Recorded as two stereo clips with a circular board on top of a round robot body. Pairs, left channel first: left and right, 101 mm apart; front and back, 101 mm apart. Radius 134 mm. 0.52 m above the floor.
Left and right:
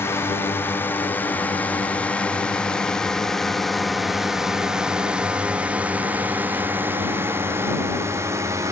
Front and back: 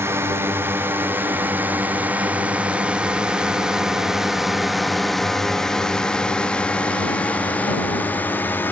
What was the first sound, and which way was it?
A drone, 140° left.